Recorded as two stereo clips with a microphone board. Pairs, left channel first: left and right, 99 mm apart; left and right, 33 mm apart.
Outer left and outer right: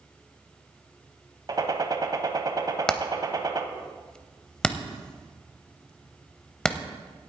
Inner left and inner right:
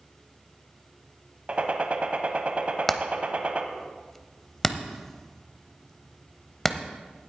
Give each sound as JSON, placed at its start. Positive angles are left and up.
{"t": 1.5, "sound": "a gunshot", "side_deg": -45, "distance_m": 0.9}
{"t": 2.9, "sound": "hammering", "side_deg": 10, "distance_m": 0.7}